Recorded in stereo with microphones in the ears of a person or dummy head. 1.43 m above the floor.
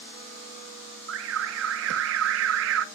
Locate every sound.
1.1 s an alarm: 65° right (ahead or behind), 0.8 m